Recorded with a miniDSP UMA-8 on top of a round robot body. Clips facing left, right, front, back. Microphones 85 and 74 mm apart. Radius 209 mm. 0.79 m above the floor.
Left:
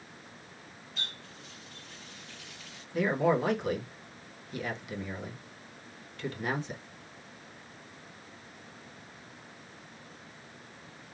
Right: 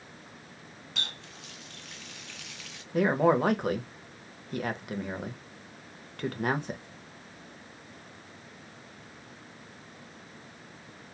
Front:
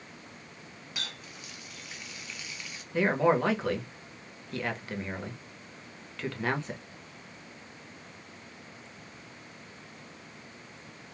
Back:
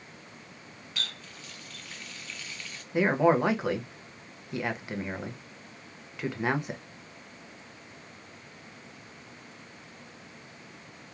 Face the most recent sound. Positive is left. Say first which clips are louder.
# right 3 dB, back 2 dB
turn(degrees=-105)